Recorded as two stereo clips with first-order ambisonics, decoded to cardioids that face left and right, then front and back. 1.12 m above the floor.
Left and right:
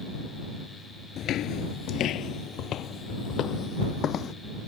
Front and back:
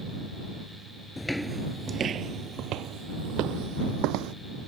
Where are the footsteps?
70° left; by 4.3 s 150° left.